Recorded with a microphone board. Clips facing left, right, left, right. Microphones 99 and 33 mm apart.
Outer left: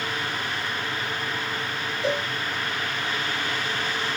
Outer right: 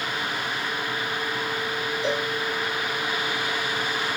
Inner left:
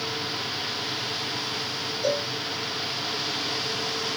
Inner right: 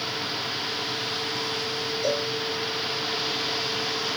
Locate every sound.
2.0 s a cowbell: 20° left (ahead or behind), 1.9 m